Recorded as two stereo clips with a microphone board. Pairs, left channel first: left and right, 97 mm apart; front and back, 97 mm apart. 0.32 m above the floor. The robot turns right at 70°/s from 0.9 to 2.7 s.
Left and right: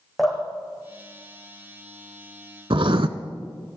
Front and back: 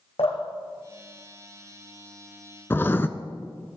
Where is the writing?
65° right, 0.7 m.